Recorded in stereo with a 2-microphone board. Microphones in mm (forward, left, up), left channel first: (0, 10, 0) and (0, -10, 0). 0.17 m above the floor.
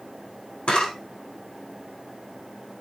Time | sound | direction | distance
0.7 | a camera shutter | 60° left (ahead or behind) | 7.5 m